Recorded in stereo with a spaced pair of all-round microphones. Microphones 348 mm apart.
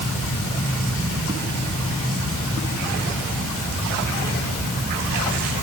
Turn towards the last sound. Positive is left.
No sound to turn to.